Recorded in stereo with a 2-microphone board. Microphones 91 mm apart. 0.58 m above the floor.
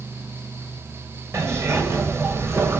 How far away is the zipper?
About 3.5 m.